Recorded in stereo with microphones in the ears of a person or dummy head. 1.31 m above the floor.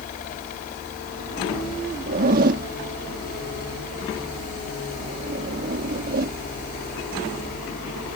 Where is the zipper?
50° right (ahead or behind).